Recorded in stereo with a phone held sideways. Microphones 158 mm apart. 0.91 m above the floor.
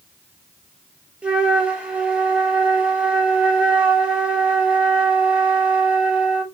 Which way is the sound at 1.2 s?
10° right (ahead or behind).